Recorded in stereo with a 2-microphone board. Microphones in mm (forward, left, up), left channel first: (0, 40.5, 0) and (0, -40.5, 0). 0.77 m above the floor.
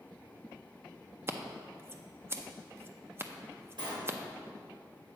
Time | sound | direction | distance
1.3 | scissors | 30° right (ahead or behind) | 0.6 m
3.8 | a sliding door | 75° right (ahead or behind) | 2.5 m